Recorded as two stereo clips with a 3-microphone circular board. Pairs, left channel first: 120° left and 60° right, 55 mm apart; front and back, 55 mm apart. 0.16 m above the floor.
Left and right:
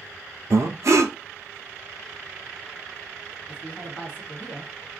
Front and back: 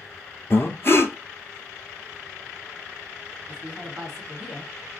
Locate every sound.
0.5 s breathing: 45° right, 0.6 m
3.5 s a woman speaking: 100° left, 1.2 m